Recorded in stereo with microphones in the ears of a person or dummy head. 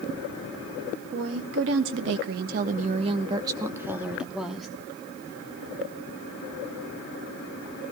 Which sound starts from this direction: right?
A woman speaking, at 1.1 s.